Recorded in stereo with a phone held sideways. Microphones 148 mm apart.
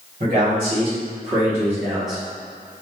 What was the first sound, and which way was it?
A man speaking, 50° right (ahead or behind).